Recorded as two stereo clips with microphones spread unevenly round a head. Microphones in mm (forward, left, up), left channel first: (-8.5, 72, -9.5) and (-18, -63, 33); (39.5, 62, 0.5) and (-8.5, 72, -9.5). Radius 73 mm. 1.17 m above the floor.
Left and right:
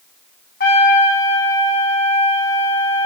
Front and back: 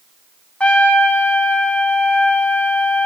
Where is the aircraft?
I don't hear an aircraft.